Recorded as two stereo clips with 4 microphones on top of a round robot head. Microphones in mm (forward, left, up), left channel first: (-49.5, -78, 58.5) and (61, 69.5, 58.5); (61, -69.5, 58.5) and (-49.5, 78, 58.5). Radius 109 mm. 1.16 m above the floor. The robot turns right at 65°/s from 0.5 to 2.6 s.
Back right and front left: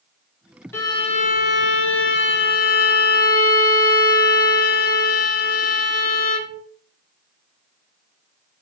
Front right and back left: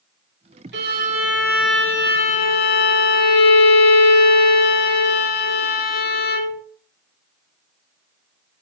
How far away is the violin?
About 2 m.